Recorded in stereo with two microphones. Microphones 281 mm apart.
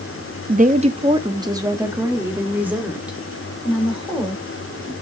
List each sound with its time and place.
0.5 s a woman speaking: 30° right (ahead or behind), 0.7 m; by 4.9 s centre (ahead or behind), 3 m